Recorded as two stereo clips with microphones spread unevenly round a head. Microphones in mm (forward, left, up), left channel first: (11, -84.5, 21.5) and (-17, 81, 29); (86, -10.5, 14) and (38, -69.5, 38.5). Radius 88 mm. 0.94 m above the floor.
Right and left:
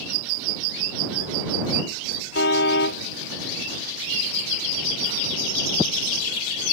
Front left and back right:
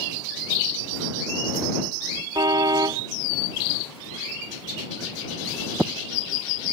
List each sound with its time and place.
2.4 s a car horn: 100° right